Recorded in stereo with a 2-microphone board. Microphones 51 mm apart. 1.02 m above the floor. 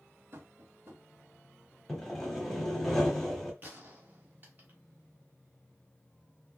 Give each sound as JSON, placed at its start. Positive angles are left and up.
{"t": 0.3, "sound": "tapping", "side_deg": -45, "distance_m": 1.1}
{"t": 1.9, "sound": "sawing", "side_deg": 5, "distance_m": 0.9}
{"t": 3.6, "sound": "a gunshot", "side_deg": -35, "distance_m": 1.0}